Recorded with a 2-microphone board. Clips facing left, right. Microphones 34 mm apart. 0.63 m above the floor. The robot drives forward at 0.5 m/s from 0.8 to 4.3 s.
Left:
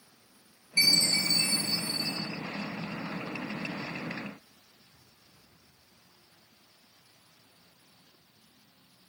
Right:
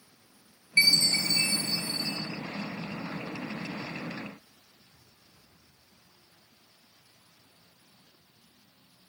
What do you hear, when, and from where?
0.8 s a chime: 40° right (ahead or behind), 1.1 m; by 2.2 s 45° right (ahead or behind), 1.0 m